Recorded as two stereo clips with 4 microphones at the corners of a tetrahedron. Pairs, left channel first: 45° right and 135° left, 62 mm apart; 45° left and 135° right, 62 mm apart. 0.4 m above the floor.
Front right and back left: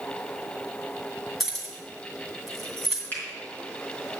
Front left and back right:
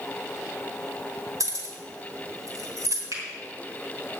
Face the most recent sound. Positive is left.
turn(degrees=-105)